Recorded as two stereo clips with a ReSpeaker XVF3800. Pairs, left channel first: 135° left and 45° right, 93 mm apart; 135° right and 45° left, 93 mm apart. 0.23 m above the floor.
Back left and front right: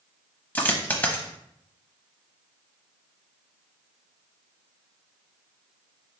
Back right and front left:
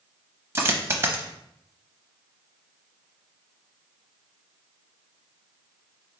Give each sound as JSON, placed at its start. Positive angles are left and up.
{"t": 0.6, "sound": "a dropped coin", "azimuth_deg": 85, "distance_m": 0.6}